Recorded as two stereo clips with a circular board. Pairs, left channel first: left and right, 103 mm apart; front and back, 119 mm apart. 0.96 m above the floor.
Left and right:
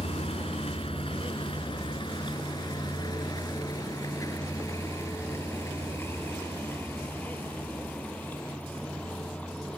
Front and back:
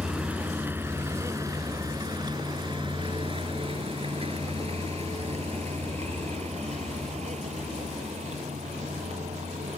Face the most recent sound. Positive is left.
turn(degrees=170)